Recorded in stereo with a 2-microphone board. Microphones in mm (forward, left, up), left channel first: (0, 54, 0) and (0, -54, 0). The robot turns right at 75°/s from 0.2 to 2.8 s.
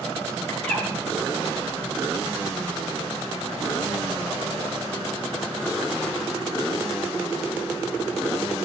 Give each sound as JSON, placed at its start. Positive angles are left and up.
{"t": 0.5, "sound": "a bird", "side_deg": 25, "distance_m": 9.0}